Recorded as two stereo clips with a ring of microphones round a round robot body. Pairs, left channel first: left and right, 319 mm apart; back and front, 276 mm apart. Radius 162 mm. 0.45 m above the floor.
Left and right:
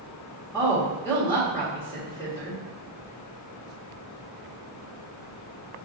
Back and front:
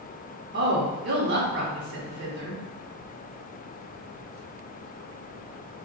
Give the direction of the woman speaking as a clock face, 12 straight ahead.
12 o'clock.